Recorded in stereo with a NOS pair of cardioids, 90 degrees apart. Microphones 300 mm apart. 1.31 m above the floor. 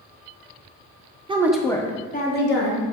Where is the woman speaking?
20° right, 0.8 m; by 2.8 s 45° left, 1.7 m.